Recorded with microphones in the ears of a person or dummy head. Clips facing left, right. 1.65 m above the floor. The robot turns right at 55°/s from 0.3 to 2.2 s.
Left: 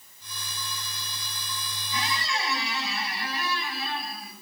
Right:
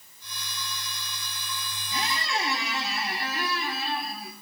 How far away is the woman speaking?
No woman speaking in this recording.